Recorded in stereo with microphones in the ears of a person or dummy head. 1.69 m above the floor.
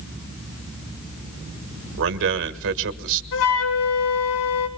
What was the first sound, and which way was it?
A man speaking, 70° right (ahead or behind).